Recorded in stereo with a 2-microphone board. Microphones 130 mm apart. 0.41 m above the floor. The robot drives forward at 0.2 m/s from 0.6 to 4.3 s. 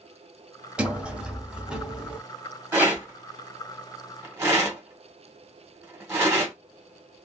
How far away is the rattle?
About 1.8 m.